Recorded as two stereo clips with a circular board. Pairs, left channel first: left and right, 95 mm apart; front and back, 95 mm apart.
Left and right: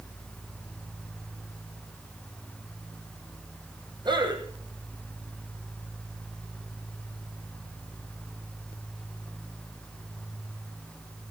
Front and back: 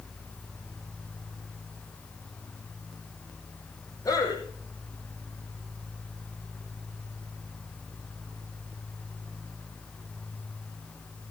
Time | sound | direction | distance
4.0 | a man speaking | 50° right | 5 m